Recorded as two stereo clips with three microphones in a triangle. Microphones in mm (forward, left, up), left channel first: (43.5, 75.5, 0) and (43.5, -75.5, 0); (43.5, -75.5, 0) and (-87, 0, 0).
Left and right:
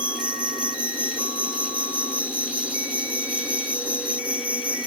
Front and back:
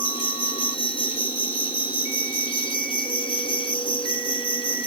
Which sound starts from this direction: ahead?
An insect, at 0.0 s.